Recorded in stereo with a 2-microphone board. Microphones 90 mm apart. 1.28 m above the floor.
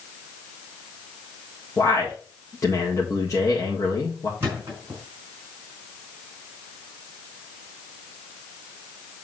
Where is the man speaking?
35° left (ahead or behind), 1.8 m.